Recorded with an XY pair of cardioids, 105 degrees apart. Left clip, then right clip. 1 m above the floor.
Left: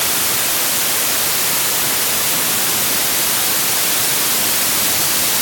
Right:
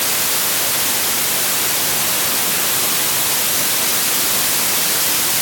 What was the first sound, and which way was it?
Only background noise.